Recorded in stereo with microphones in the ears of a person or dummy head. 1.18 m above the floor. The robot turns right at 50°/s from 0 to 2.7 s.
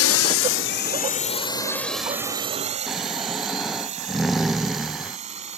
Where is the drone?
70° left (ahead or behind); by 5.6 s 35° right (ahead or behind).